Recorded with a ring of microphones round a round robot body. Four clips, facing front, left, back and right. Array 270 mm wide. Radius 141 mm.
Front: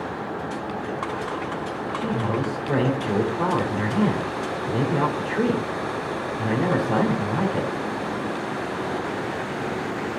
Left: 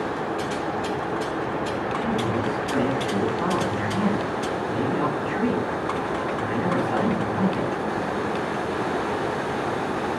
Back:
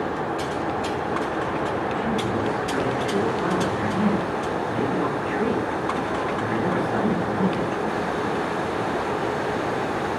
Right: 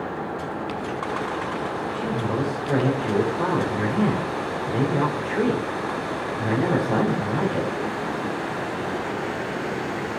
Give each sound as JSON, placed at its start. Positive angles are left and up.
{"t": 1.9, "sound": "a man speaking", "azimuth_deg": -45, "distance_m": 3.5}